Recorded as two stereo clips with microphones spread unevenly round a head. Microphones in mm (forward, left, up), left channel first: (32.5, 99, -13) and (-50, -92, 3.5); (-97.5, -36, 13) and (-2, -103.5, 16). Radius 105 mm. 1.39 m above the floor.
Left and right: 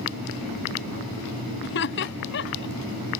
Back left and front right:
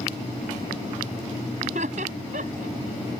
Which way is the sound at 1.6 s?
25° left.